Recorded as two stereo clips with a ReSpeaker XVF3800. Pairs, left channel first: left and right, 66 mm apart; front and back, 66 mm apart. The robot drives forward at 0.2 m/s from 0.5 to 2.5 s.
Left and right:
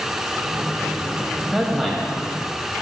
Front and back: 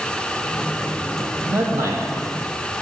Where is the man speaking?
175° right, 1.2 m.